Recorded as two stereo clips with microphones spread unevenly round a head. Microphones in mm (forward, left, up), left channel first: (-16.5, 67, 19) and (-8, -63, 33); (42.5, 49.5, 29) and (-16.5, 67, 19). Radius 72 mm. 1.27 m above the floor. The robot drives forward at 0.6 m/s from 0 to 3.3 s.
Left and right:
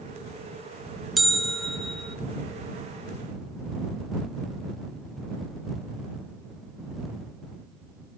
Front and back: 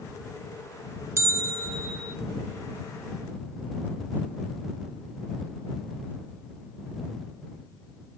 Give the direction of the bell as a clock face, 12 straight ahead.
6 o'clock.